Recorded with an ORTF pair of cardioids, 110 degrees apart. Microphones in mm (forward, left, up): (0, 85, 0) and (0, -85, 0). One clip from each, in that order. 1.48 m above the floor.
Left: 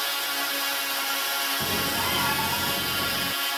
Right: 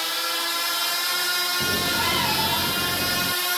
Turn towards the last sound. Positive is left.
turn(degrees=-25)